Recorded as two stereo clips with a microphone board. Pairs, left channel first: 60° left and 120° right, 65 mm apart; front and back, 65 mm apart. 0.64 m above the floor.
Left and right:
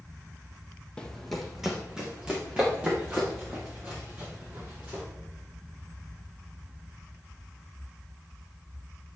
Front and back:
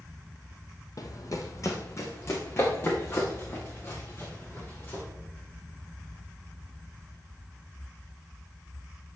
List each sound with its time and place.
1.0 s running footsteps: 15° right, 1.3 m; by 5.0 s 55° right, 6 m